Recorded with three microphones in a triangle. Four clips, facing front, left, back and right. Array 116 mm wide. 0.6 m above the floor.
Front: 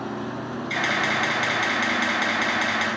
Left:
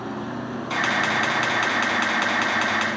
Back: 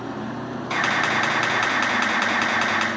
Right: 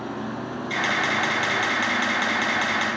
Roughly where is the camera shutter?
Behind left.